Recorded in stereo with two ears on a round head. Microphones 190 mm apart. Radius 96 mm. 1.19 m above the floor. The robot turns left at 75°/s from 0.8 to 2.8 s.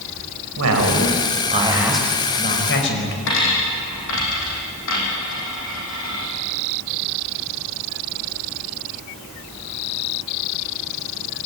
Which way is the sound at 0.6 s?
95° right.